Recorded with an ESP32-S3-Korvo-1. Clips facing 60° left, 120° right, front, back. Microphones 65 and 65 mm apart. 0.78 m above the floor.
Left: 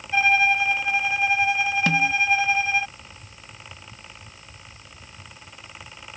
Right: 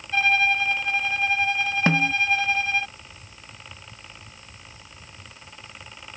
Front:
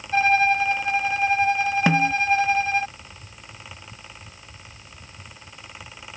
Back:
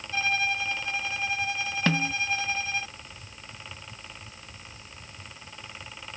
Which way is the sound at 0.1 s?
15° right.